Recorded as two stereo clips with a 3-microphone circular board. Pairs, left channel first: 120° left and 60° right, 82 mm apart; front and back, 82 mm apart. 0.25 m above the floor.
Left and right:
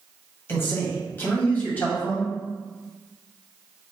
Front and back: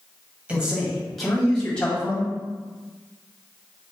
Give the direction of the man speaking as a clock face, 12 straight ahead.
8 o'clock.